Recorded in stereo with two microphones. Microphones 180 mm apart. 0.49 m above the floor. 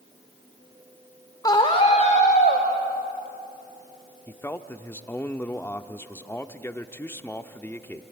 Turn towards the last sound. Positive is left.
turn(degrees=15)  # may be behind; listen again after turning